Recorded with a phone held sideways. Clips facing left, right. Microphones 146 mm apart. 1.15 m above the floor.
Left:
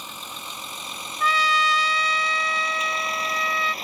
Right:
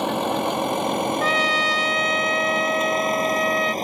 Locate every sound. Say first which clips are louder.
0.0 s a vehicle: right 19 dB; 60° right (ahead or behind); by 3.9 s 40° right (ahead or behind)
1.2 s a trumpet: right 2 dB; 45° right (ahead or behind)